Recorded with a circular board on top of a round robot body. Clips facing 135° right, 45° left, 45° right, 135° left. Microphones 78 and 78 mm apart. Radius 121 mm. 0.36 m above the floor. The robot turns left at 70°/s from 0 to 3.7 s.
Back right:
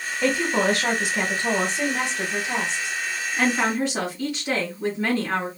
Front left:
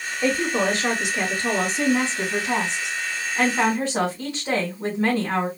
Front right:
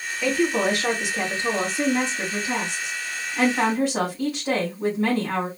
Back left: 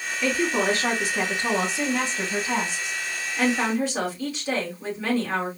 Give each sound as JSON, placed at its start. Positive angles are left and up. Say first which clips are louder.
{"t": 0.2, "sound": "a woman speaking", "louder": "even, front right 2 dB", "azimuth_deg": -125, "distance_m": 3.5}